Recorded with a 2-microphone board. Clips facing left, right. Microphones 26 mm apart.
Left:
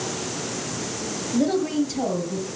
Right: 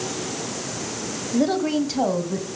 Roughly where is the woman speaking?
Centre.